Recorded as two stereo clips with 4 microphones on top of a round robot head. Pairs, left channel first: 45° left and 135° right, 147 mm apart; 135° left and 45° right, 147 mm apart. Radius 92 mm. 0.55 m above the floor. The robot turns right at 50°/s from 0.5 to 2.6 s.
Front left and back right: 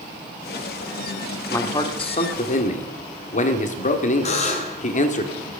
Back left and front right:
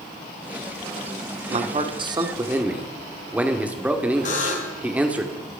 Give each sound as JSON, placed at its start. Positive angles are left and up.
{"t": 1.5, "sound": "a man speaking", "azimuth_deg": -20, "distance_m": 1.8}
{"t": 4.2, "sound": "a buzzer", "azimuth_deg": 95, "distance_m": 2.5}